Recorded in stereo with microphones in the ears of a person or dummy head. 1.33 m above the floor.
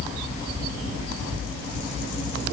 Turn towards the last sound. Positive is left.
No sound to turn to.